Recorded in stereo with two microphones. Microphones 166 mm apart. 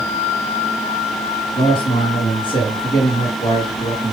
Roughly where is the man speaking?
Left.